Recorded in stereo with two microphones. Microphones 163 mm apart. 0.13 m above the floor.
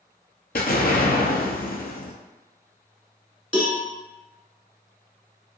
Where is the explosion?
75° left (ahead or behind), 0.6 m.